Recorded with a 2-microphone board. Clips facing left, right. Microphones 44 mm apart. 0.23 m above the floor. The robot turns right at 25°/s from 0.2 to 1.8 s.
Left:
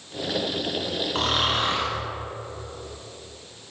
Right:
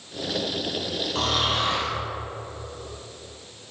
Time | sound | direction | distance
1.1 | snoring | 30° left (ahead or behind) | 3 m